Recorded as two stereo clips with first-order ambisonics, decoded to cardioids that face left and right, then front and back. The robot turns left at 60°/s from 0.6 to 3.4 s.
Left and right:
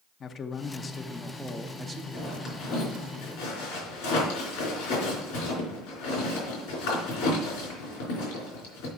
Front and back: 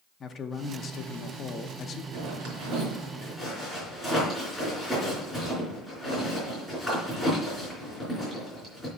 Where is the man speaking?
45° left, 0.6 m; by 2.0 s 40° right, 0.6 m.